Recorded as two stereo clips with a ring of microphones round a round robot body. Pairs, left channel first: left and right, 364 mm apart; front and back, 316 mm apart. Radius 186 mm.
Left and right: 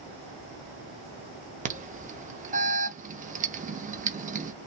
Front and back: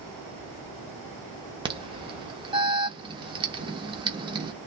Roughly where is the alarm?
Behind right.